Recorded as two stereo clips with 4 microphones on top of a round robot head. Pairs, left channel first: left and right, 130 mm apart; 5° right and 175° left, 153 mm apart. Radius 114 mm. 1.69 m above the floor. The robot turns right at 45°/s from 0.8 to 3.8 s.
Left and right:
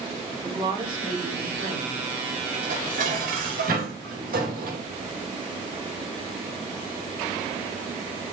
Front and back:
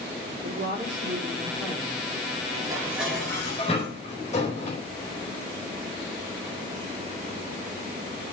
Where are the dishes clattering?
120° right, 4.5 m; by 4.8 s 60° right, 4.5 m.